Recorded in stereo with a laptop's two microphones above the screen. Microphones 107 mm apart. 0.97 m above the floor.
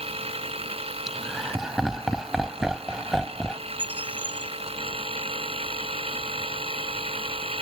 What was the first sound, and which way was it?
A machine running, 65° right (ahead or behind).